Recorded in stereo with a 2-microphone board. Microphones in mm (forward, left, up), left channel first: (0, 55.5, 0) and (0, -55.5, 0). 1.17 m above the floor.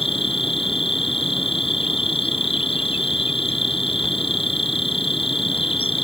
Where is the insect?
70° left (ahead or behind).